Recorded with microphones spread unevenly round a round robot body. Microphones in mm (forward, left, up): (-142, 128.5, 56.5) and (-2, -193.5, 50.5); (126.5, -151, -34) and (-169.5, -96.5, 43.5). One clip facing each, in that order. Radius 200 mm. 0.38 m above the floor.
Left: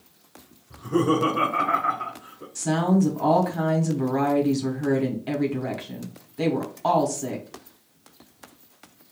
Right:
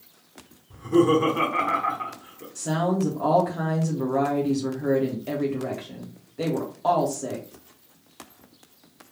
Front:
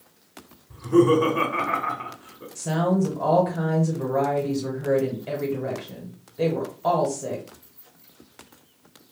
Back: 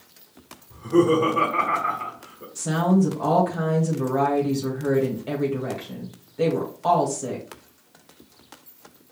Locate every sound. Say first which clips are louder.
0.7 s laughter: right 3 dB, front 1 dB; straight ahead, 1.1 m
2.5 s a woman speaking: left 3 dB, back 2 dB; 55° left, 1.0 m